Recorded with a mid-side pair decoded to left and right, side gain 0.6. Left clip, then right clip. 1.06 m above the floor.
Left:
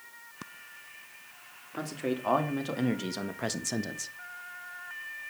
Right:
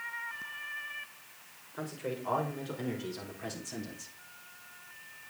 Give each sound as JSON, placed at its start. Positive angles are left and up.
{"t": 1.8, "sound": "a man speaking", "azimuth_deg": 70, "distance_m": 3.0}